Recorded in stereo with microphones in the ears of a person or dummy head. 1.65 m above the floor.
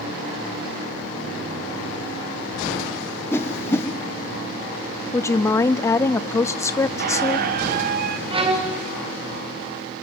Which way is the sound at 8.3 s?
20° right (ahead or behind).